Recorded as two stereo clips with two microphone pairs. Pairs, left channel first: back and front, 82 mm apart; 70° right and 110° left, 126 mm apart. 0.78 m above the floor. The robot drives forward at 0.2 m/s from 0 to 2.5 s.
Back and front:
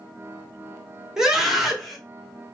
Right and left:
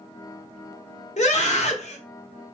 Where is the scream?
85° right, 1.2 m; by 2.0 s 90° right, 1.2 m.